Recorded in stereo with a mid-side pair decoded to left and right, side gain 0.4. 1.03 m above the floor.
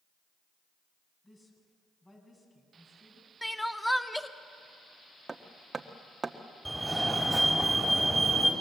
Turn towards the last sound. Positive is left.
turn(degrees=-5)